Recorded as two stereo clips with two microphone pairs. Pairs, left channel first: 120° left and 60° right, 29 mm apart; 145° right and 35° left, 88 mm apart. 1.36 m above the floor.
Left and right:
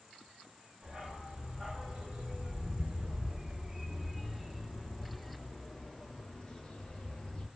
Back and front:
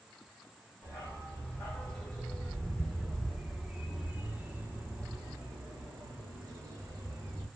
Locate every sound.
0.8 s a dog barking: 80° right, 2.0 m; by 7.5 s 75° left, 1.9 m